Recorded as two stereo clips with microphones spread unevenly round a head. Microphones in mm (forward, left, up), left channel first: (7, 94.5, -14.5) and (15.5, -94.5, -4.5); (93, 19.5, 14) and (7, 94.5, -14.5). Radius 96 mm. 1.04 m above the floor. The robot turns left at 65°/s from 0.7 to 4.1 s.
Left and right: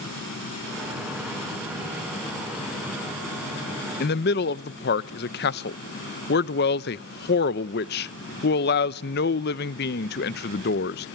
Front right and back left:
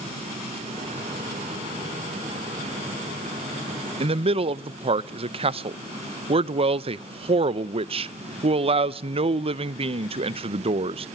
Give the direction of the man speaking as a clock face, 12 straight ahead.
8 o'clock.